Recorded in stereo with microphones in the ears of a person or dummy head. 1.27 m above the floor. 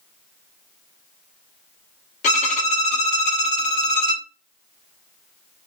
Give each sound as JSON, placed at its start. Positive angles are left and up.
{"t": 2.2, "sound": "a violin", "side_deg": 40, "distance_m": 0.6}